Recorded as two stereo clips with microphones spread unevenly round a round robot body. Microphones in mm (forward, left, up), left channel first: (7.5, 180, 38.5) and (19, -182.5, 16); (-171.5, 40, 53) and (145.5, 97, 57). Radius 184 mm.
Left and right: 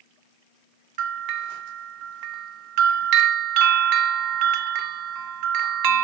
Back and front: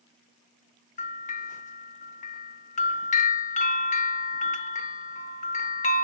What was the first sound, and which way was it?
A bell, 105° right.